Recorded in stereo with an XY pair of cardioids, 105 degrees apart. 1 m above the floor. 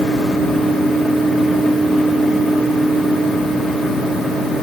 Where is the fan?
45° left, 5.5 m.